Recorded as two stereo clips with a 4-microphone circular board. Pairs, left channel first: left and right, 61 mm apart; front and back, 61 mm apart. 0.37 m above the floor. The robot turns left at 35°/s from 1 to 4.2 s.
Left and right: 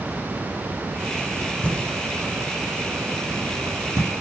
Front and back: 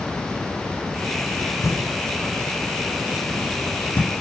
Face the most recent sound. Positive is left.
turn(degrees=-65)